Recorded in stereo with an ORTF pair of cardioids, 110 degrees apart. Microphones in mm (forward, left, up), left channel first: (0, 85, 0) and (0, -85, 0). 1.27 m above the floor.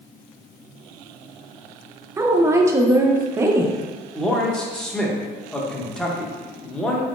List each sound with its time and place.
2.2 s a woman speaking: 15° right, 0.6 m
4.2 s a man speaking: 5° left, 0.8 m